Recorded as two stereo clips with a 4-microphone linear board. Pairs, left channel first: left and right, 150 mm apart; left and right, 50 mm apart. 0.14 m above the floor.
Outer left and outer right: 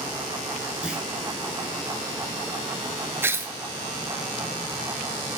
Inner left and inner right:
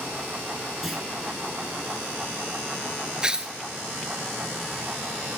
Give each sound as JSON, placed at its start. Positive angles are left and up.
{"t": 0.8, "sound": "a clunk", "side_deg": -5, "distance_m": 1.9}
{"t": 3.2, "sound": "tearing paper", "side_deg": -20, "distance_m": 0.6}